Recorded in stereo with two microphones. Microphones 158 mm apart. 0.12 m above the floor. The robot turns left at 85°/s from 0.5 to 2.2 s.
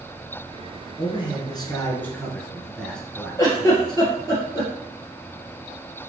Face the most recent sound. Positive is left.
turn(degrees=25)  # may be behind; listen again after turning